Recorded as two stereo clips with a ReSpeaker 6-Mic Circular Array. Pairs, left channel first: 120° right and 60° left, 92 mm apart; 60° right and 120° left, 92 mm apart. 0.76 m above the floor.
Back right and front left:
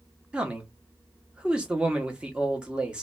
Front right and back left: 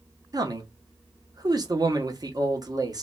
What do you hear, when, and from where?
0.3 s a man speaking: 135° left, 1.0 m